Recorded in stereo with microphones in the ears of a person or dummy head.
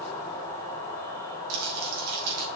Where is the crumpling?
75° right (ahead or behind), 3 m.